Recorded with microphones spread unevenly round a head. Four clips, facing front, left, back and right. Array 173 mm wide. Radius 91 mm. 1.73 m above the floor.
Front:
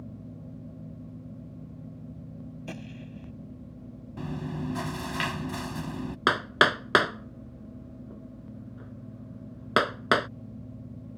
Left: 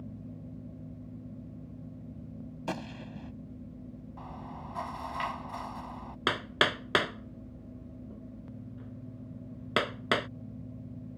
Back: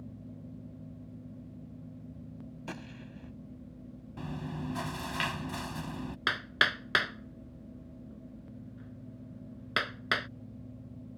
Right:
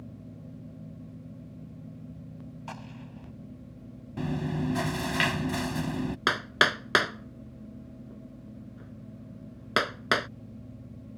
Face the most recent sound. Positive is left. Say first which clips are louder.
# right 2 dB, front 8 dB
turn(degrees=0)